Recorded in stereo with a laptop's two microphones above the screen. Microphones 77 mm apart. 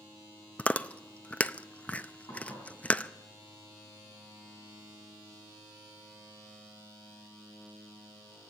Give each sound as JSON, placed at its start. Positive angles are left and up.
{"t": 0.6, "sound": "chewing", "side_deg": 15, "distance_m": 0.5}
{"t": 2.3, "sound": "dishes clattering", "side_deg": 60, "distance_m": 6.5}